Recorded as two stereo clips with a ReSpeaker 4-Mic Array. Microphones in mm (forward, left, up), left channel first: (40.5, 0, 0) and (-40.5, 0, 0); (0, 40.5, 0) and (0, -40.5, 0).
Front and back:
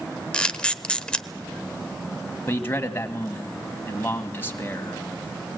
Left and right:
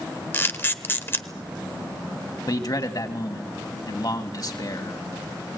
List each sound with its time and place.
0.3 s a camera shutter: 65° left, 0.9 m
2.5 s a man speaking: 60° left, 2 m